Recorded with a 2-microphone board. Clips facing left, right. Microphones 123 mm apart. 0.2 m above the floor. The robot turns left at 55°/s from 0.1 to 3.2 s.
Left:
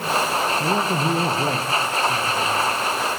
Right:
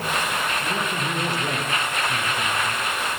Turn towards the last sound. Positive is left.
turn(degrees=-40)